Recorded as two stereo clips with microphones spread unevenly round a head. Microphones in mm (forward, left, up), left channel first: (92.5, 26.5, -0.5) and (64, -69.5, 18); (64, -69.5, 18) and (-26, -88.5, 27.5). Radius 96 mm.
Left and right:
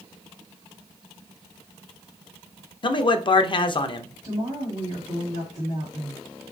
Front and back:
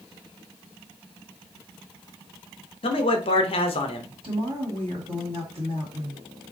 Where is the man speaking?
35° left, 0.6 m.